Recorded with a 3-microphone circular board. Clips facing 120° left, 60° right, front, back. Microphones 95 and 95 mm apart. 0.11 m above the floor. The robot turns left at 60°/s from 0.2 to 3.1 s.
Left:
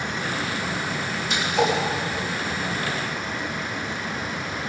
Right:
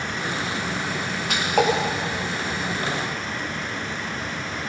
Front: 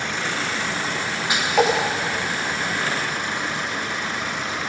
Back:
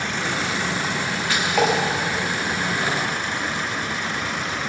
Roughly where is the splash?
Right.